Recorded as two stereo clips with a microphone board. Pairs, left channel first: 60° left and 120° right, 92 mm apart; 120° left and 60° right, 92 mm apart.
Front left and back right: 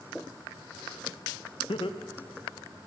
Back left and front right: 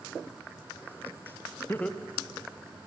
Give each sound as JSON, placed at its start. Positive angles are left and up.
{"t": 1.7, "sound": "laughter", "azimuth_deg": 60, "distance_m": 0.7}